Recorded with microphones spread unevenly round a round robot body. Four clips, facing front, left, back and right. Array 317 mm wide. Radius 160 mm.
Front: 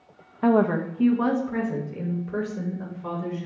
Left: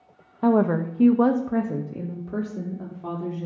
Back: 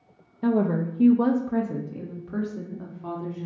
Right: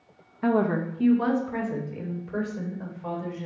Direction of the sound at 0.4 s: 115° left.